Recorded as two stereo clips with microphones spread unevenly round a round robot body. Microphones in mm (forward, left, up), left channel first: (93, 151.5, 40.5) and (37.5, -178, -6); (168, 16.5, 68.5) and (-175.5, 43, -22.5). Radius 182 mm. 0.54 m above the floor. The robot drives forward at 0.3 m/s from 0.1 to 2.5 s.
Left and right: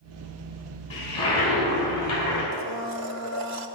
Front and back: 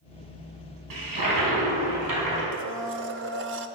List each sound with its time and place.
0.9 s a toilet flushing: 155° left, 4.5 m; by 2.4 s 160° left, 5 m
2.5 s a blender: 140° right, 0.7 m